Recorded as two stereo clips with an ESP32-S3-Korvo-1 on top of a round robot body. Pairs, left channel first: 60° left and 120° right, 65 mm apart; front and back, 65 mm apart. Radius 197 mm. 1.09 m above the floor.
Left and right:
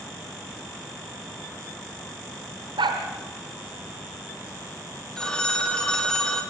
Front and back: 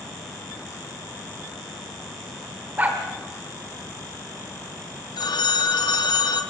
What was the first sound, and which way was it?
A dog barking, 115° right.